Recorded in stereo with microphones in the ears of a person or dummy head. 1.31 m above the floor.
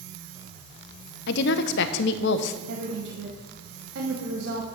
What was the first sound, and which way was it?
A woman speaking, 70° left (ahead or behind).